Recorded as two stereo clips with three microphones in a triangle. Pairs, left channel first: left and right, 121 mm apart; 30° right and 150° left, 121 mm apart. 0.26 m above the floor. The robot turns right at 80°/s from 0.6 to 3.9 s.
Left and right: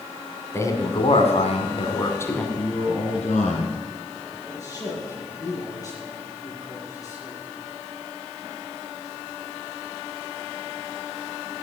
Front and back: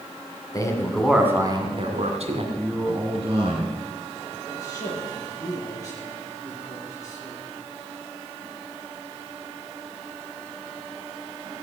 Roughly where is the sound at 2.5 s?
Ahead left.